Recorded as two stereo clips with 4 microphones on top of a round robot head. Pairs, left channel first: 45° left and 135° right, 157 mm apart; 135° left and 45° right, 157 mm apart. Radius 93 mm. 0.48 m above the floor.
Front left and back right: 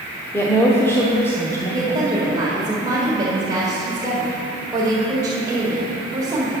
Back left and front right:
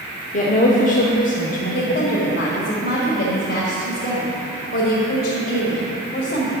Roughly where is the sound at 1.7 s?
Behind left.